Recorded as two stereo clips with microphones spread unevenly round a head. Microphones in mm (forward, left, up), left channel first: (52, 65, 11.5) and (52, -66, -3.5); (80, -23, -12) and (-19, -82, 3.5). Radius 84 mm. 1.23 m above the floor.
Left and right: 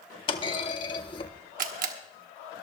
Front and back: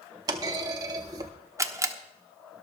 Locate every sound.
0.3 s a clunk: 145° left, 0.6 m
1.6 s a camera shutter: 85° right, 1.1 m